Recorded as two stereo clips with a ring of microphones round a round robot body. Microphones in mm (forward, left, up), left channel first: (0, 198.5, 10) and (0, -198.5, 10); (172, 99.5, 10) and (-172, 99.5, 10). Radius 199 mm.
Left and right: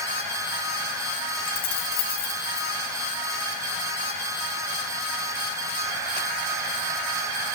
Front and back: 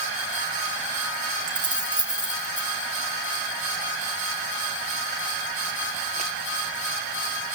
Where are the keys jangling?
100° left, 3.5 m.